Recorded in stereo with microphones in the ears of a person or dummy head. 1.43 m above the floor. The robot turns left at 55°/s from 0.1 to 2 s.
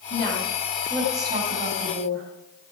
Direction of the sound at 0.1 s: 35° left.